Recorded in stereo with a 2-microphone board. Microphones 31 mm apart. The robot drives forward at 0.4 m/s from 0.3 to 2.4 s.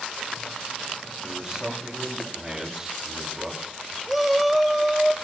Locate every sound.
1.2 s a man speaking: 15° right (ahead or behind), 9 m
4.1 s a shout: centre (ahead or behind), 1.0 m